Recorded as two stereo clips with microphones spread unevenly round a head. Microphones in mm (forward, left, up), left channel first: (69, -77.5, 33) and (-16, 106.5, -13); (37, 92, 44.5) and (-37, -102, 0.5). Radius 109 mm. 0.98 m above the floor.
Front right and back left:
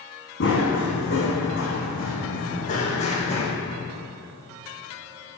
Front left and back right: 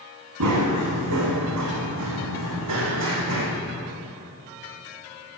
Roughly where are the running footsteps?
Right.